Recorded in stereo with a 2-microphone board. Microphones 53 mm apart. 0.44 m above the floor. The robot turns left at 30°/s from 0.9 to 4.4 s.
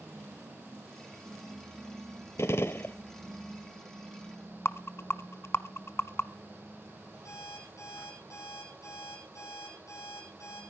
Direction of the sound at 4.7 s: 50° left (ahead or behind).